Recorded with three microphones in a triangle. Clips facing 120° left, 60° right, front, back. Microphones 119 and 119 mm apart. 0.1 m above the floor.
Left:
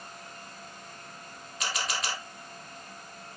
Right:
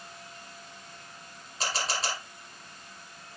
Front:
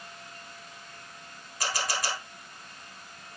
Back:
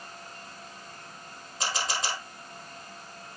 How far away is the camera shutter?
About 3.5 m.